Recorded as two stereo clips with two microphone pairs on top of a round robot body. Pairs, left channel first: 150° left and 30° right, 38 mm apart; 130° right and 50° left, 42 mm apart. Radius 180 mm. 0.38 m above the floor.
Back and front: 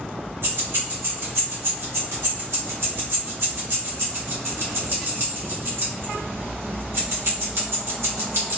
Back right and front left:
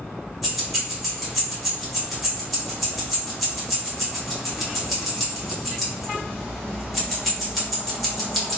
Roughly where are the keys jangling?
Ahead right.